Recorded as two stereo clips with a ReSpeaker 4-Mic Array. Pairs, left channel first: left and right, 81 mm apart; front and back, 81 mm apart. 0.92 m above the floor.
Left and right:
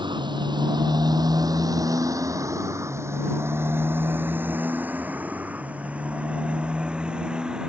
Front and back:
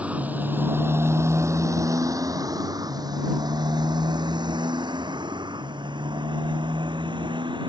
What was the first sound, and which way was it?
A motorcycle, 105° right.